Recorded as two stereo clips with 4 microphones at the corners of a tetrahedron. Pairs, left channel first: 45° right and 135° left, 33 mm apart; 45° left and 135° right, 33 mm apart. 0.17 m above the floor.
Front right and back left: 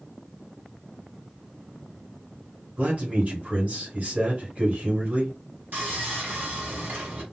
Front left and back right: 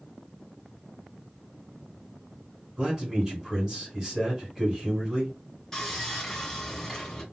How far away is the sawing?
About 2 m.